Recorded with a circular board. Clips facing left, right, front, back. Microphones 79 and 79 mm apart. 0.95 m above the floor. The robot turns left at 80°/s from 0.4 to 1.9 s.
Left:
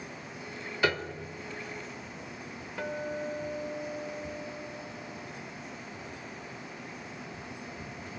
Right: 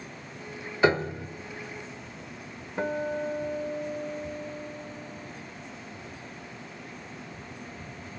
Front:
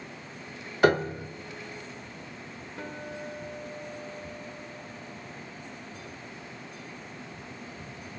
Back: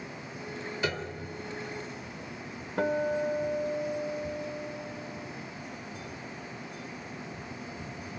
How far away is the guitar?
About 1.3 m.